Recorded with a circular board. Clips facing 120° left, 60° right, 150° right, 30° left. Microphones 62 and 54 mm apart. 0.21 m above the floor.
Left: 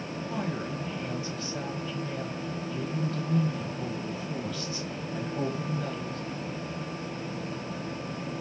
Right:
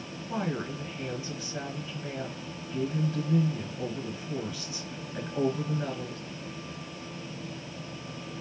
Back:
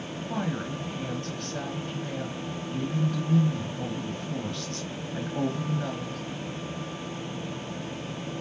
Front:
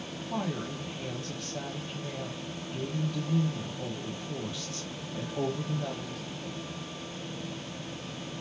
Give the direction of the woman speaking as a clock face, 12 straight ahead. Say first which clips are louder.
Right 2 dB, back 2 dB; 4 o'clock.